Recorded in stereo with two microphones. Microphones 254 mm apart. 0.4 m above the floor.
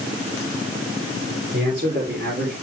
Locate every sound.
1.5 s a man speaking: 55° right (ahead or behind), 8.5 m; by 2.5 s 45° right (ahead or behind), 9.5 m